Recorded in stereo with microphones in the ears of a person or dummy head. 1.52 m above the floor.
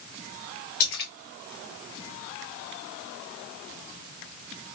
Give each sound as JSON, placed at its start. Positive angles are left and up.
{"t": 0.8, "sound": "a splash", "side_deg": 60, "distance_m": 1.4}